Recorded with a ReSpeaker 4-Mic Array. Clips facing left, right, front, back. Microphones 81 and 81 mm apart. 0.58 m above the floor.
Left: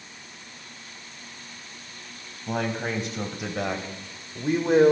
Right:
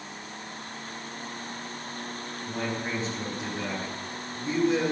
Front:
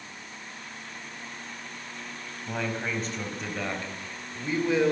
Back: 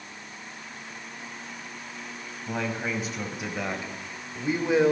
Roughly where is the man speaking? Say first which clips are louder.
Left 4 dB, back 1 dB; left.